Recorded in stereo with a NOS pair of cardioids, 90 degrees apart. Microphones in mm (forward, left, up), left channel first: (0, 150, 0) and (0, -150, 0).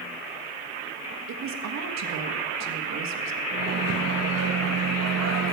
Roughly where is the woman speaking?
Ahead right.